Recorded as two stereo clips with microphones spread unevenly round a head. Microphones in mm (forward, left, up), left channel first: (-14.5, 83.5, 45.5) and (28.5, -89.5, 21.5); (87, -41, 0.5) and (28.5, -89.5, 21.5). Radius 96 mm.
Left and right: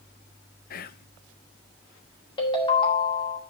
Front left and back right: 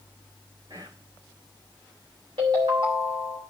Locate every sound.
0.7 s whispering: 145° left, 0.6 m
2.4 s a ringtone: 170° left, 2.5 m